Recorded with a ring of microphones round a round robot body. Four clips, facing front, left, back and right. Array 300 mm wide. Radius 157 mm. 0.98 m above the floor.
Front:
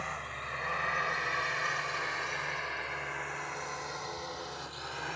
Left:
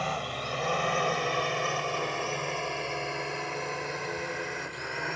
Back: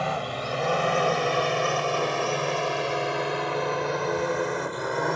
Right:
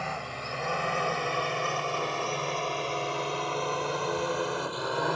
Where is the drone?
170° left; by 5.2 s 160° right.